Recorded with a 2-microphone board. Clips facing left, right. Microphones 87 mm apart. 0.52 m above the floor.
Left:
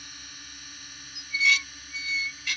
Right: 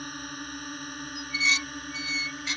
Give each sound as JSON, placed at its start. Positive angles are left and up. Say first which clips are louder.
{"t": 0.0, "sound": "a drone", "louder": "right 12 dB", "side_deg": -50}
{"t": 1.1, "sound": "dishes clattering", "louder": "left 3 dB", "side_deg": -25}